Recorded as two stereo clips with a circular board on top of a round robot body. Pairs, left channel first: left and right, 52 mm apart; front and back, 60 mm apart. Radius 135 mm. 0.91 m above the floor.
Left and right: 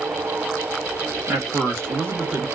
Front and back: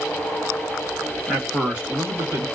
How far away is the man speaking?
About 1.6 m.